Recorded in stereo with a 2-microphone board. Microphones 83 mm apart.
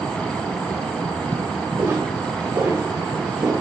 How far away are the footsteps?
About 4.5 m.